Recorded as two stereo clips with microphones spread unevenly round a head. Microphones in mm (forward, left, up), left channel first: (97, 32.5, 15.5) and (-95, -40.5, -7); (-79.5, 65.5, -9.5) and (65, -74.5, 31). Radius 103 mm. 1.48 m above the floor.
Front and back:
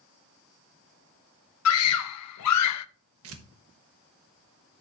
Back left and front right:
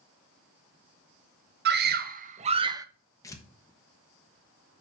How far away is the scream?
About 1.0 m.